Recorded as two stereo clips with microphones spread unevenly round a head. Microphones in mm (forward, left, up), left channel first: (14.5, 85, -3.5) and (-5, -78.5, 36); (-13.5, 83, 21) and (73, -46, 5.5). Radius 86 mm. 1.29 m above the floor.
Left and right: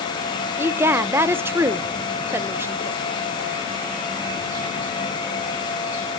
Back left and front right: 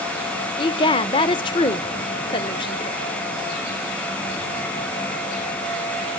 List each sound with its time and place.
0.6 s a woman speaking: 170° right, 0.7 m